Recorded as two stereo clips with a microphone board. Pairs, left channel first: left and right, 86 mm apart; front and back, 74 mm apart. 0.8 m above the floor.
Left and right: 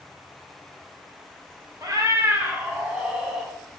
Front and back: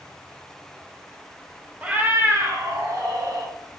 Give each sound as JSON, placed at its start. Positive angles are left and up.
{"t": 1.8, "sound": "a cat meowing", "azimuth_deg": -115, "distance_m": 0.6}